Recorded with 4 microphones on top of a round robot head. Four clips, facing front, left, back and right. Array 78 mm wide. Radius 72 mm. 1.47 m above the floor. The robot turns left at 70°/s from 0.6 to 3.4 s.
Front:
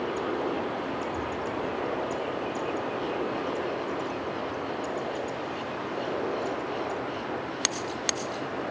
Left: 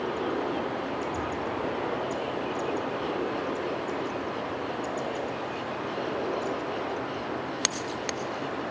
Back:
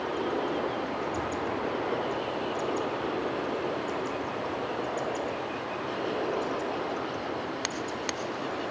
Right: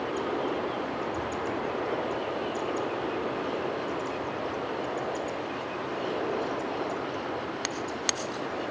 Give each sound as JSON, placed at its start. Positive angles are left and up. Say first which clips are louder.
{"t": 1.1, "sound": "an explosion", "louder": "even, even", "azimuth_deg": 110, "distance_m": 9.5}